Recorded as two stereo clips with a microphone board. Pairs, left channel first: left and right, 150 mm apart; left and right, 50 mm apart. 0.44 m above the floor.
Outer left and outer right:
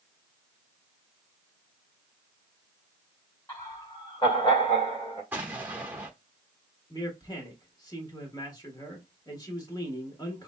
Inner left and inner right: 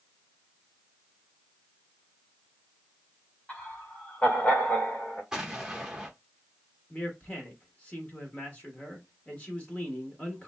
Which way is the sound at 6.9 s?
25° left (ahead or behind).